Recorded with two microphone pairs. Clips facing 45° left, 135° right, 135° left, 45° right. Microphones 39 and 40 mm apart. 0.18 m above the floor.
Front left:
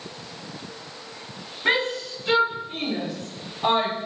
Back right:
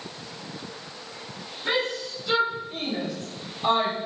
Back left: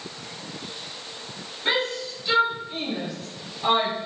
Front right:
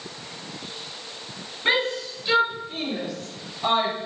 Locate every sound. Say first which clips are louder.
1.6 s a shout: front left 4 dB, front right 2 dB; 30° left, 3.5 m; by 4.0 s 70° left, 4 m